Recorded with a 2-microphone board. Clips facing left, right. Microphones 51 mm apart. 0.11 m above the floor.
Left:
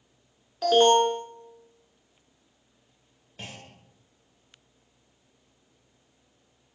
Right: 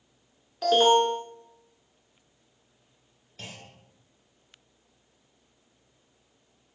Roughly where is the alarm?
Centre.